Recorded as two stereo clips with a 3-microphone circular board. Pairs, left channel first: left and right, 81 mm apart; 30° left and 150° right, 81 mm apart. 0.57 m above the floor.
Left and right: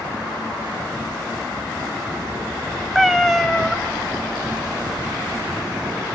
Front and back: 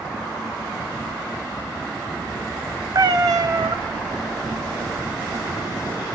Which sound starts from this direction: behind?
A cat meowing, at 3.0 s.